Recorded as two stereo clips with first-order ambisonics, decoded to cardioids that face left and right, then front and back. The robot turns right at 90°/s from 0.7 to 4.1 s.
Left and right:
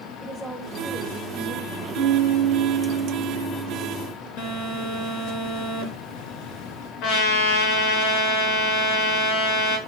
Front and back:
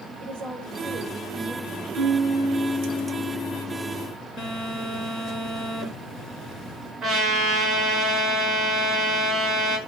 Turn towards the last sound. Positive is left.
turn(degrees=110)